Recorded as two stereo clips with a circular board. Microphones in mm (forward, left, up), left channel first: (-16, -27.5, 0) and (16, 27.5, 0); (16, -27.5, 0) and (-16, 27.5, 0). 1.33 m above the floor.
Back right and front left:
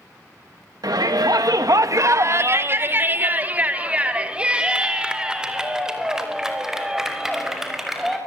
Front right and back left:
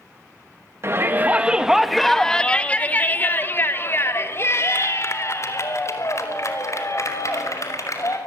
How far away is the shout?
About 1.4 m.